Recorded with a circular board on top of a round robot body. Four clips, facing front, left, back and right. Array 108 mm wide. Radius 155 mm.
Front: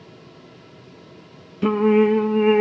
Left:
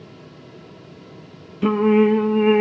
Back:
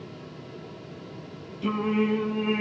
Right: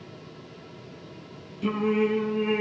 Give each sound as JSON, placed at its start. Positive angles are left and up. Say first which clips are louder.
{"t": 1.6, "sound": "singing", "louder": "left 9 dB, front 9 dB", "azimuth_deg": 45, "distance_m": 0.5}